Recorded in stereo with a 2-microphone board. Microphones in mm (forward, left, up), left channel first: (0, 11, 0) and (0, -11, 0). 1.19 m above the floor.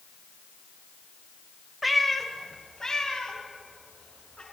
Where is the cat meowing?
5° right (ahead or behind), 1.1 m; by 4.4 s 30° left (ahead or behind), 3.5 m.